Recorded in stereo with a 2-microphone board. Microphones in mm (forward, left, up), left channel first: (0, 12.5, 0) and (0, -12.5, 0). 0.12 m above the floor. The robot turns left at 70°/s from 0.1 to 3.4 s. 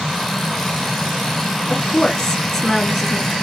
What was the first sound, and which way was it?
A woman speaking, 25° left (ahead or behind).